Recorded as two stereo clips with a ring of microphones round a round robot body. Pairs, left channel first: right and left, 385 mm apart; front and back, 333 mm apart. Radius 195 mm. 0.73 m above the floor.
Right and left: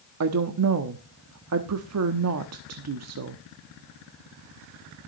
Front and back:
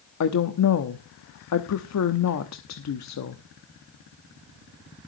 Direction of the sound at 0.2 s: 40° left.